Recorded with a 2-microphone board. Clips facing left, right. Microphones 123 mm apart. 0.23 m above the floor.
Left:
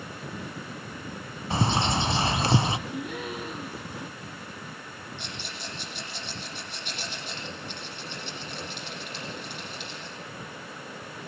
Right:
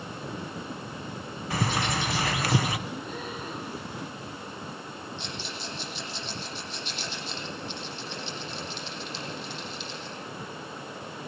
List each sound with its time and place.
1.5 s a bird: 30° left (ahead or behind), 1.1 m
2.9 s a gasp: 75° left (ahead or behind), 6 m
5.2 s a rattle: 55° left (ahead or behind), 9 m